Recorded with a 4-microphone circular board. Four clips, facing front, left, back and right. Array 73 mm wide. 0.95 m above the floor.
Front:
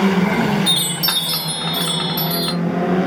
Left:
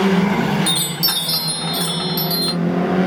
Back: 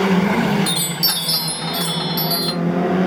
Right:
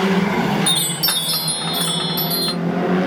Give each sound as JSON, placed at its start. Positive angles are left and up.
{"t": 0.7, "sound": "a chime", "azimuth_deg": -25, "distance_m": 0.7}